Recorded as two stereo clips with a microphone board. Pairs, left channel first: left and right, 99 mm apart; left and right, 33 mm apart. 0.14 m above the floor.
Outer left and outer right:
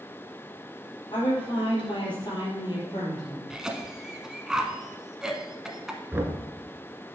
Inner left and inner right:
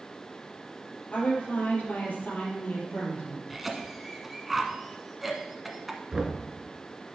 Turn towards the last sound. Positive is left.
turn(degrees=-20)  # may be behind; listen again after turning